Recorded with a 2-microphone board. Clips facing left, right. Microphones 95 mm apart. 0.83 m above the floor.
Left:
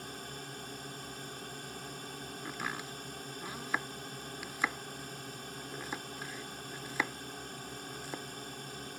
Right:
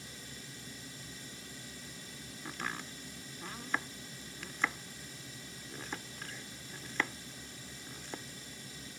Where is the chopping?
10° left (ahead or behind).